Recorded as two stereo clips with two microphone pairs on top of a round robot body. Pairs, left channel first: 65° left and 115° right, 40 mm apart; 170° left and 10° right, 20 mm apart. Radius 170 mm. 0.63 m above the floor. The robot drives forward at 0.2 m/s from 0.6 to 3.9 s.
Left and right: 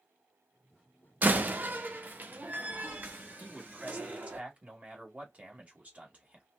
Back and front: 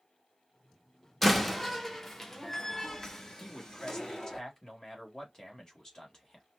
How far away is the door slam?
About 1.0 m.